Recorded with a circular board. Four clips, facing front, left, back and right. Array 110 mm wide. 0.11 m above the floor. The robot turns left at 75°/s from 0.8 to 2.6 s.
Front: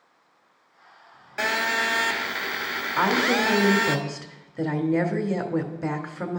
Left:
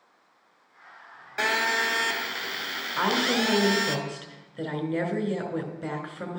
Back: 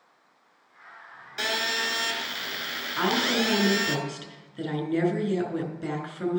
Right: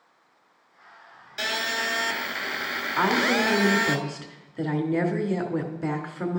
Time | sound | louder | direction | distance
1.4 | a phone buzzing | left 4 dB, front 5 dB | 50° left | 0.7 m
3.0 | a woman speaking | right 2 dB, front 3 dB | 25° right | 1.1 m